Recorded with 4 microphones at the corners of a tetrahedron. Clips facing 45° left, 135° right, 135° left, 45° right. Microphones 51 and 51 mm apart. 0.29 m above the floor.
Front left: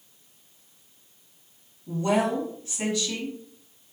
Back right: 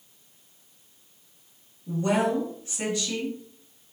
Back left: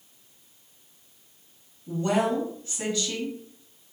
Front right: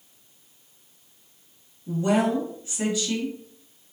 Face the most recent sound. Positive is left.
turn(degrees=-100)